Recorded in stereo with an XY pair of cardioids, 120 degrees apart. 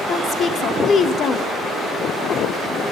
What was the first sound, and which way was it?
A woman speaking, 45° left.